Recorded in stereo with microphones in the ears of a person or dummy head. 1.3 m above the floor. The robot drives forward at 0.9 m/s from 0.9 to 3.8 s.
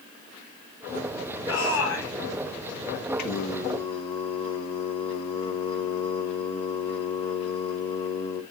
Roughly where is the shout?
Left.